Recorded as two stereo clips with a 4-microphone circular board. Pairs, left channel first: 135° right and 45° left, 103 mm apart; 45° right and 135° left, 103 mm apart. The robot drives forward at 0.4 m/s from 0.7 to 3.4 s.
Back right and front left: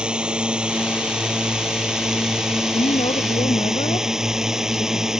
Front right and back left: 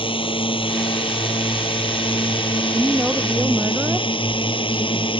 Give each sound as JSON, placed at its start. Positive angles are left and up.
{"t": 0.0, "sound": "a drone", "azimuth_deg": -35}
{"t": 2.7, "sound": "a woman speaking", "azimuth_deg": -145}